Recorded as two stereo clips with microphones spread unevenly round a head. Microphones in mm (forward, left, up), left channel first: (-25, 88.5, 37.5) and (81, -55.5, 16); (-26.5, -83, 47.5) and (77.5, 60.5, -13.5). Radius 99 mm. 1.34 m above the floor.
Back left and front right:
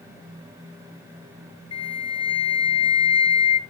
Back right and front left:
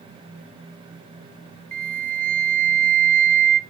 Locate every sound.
1.7 s a flute: 65° left, 0.8 m